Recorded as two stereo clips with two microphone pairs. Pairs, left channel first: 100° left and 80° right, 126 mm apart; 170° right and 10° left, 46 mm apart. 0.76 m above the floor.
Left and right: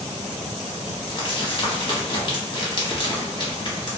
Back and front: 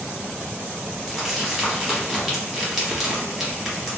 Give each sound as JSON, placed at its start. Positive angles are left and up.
{"t": 1.1, "sound": "crumpling", "azimuth_deg": 95, "distance_m": 1.1}